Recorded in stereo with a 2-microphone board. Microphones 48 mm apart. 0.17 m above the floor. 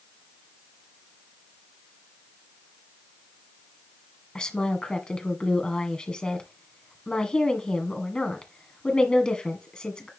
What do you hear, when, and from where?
4.3 s a woman speaking: 20° left (ahead or behind), 1.8 m